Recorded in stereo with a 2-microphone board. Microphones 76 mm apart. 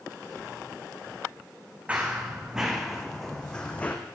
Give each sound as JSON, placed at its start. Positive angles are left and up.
{"t": 1.9, "sound": "running footsteps", "side_deg": -20, "distance_m": 2.0}